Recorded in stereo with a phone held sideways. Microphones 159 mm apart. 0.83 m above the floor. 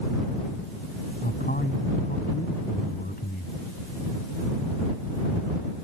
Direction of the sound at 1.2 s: 70° left (ahead or behind).